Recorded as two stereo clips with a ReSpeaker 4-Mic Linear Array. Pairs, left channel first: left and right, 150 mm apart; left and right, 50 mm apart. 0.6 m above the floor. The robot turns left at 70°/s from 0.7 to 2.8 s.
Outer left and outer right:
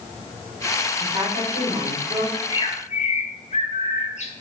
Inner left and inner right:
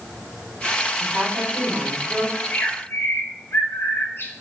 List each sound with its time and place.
1.0 s a woman speaking: 45° right, 1.6 m; by 2.2 s 135° right, 1.6 m
2.3 s a bird: 165° left, 0.5 m; by 4.3 s 130° left, 0.5 m